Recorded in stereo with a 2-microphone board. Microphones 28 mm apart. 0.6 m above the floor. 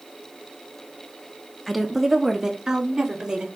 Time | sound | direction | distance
1.7 | a woman speaking | 5° left (ahead or behind) | 0.6 m